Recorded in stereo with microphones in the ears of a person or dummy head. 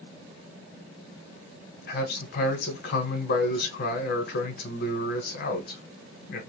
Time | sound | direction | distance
1.9 | a man speaking | 55° left (ahead or behind) | 0.9 m